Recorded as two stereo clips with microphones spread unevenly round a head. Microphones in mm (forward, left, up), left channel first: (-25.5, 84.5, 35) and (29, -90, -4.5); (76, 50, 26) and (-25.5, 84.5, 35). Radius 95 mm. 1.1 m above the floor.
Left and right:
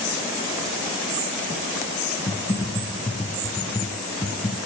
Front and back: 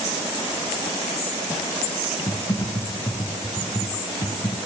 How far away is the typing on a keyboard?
About 1.9 m.